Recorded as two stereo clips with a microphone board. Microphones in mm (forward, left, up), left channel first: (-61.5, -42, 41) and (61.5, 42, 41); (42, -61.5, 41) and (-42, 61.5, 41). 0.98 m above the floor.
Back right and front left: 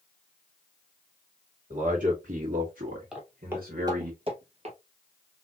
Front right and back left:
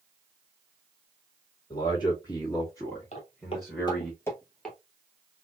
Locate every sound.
1.7 s a man speaking: straight ahead, 1.9 m; by 4.1 s 40° left, 1.6 m
3.1 s footsteps: 50° right, 1.4 m; by 4.8 s 30° left, 1.4 m